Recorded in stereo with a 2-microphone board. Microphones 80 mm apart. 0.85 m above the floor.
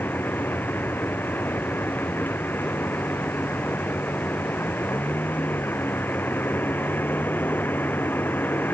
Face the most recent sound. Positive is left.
turn(degrees=25)  # may be behind; listen again after turning